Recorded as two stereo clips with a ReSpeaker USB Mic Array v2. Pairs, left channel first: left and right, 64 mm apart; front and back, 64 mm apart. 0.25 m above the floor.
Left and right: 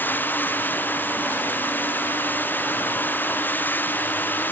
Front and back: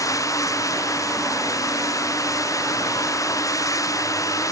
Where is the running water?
30° left.